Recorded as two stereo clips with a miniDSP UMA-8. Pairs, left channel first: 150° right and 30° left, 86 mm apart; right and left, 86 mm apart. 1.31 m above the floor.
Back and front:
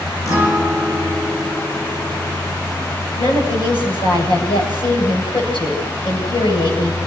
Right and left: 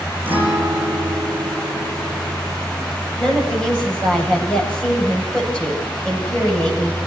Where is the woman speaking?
170° right, 9 m.